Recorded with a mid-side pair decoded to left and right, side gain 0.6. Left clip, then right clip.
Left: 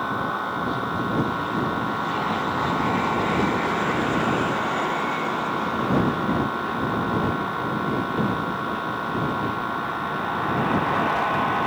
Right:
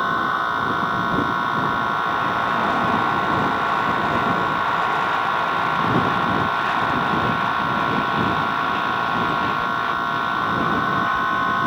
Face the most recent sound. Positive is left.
turn(degrees=-35)